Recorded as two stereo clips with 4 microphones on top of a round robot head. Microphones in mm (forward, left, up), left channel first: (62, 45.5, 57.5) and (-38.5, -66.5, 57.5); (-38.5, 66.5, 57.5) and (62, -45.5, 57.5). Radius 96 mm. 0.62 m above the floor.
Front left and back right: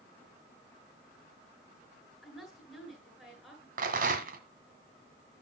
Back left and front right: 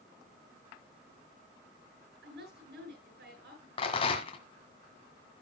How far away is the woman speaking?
About 8 m.